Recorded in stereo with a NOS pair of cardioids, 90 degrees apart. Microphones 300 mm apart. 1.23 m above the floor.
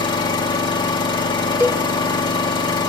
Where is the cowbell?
10° right, 2.5 m.